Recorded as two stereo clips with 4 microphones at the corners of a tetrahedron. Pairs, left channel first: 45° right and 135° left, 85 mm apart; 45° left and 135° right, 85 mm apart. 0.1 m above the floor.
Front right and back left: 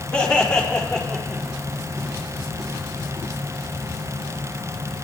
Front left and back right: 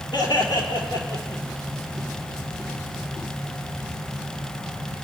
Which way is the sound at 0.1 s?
30° left.